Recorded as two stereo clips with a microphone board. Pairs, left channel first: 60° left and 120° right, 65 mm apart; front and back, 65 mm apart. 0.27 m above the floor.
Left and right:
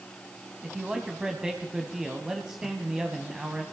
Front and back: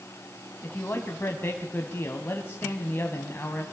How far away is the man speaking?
About 2.0 m.